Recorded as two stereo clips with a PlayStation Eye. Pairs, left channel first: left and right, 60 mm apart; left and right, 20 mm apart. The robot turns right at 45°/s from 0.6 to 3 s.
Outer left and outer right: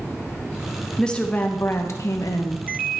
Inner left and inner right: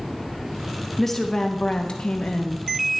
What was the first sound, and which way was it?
A woman speaking, 10° left.